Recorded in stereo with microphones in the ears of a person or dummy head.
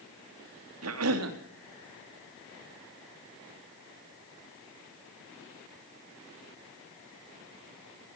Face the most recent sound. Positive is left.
turn(degrees=-80)